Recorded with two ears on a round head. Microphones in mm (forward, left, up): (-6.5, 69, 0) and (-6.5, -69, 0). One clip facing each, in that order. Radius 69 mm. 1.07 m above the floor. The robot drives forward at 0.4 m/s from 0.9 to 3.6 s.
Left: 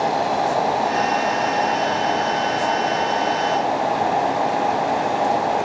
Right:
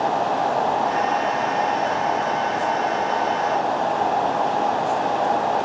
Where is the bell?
I don't hear a bell.